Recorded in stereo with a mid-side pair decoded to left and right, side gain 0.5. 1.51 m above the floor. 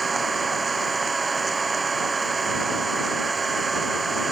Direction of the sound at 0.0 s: 30° right.